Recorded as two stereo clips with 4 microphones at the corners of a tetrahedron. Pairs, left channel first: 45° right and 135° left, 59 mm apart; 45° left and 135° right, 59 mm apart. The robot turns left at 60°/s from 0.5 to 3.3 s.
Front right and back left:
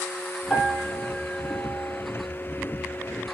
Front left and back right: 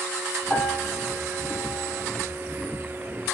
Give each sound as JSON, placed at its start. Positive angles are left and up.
{"t": 0.5, "sound": "a piano", "azimuth_deg": 30, "distance_m": 1.3}